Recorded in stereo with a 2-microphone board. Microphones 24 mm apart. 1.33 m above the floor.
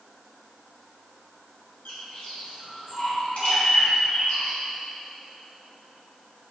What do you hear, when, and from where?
1.9 s a bird: 70° left (ahead or behind), 3 m